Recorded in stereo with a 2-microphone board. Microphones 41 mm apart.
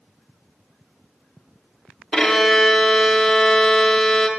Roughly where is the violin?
Centre.